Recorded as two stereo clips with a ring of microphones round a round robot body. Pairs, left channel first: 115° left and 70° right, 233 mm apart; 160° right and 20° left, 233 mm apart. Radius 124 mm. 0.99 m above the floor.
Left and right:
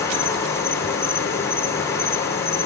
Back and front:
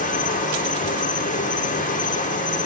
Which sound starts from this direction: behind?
An insect, at 0.0 s.